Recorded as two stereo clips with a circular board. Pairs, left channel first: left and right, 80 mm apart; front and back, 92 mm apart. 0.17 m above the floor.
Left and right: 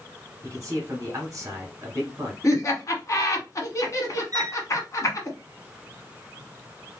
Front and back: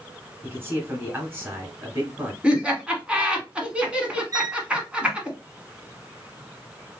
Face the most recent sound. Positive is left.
turn(degrees=-130)